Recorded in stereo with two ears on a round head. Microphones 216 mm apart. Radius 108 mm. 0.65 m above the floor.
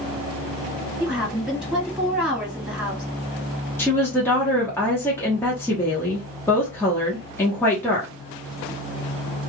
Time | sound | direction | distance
1.0 | a woman speaking | 5° right (ahead or behind) | 1.4 m
3.8 | a woman speaking | 10° left (ahead or behind) | 0.9 m